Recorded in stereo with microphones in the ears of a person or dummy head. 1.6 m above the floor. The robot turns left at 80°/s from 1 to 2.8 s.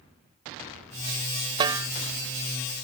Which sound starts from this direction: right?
A snare drum, at 1.6 s.